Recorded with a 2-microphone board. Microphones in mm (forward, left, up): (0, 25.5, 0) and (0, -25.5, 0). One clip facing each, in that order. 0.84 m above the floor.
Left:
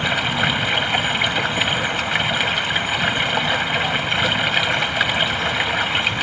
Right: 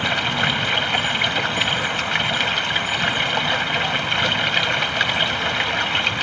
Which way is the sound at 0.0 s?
5° left (ahead or behind).